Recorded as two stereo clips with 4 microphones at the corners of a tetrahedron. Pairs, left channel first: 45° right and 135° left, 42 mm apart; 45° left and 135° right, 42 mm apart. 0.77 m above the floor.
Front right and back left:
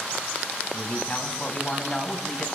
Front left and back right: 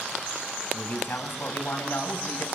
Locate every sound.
0.7 s a man speaking: 5° left, 5 m; by 2.5 s 35° left, 4 m